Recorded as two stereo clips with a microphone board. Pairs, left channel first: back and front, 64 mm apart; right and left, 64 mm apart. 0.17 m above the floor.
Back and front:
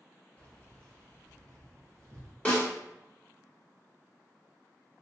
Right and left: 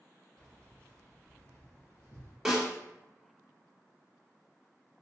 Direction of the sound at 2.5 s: 160° left.